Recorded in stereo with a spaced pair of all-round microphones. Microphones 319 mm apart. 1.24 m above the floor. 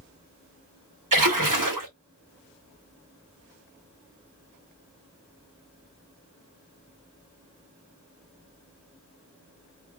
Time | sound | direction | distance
1.1 | a splash | 75° right (ahead or behind) | 1.3 m